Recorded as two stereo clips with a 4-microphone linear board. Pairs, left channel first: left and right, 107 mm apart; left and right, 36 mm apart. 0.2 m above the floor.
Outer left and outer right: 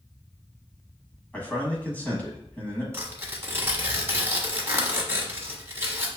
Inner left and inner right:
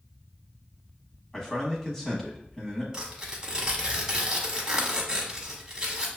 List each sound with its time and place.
1.3 s a man speaking: 15° left (ahead or behind), 1.1 m
2.9 s tearing paper: 25° right (ahead or behind), 0.8 m